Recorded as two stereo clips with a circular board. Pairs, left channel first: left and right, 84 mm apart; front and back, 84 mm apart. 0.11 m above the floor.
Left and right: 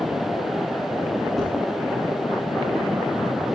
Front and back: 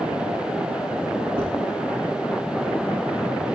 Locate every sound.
1.4 s dishes clattering: 175° left, 6 m